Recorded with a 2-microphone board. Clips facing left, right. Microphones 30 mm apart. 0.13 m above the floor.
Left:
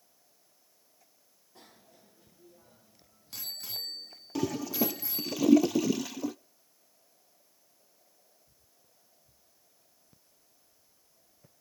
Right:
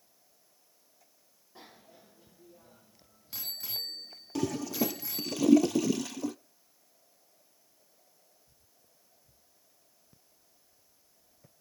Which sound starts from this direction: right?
A bicycle bell, at 1.6 s.